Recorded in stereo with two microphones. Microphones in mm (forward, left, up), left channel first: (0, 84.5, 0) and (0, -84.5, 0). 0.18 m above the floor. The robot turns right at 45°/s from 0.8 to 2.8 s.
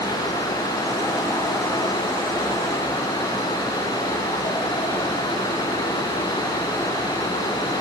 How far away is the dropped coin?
No dropped coin in this recording.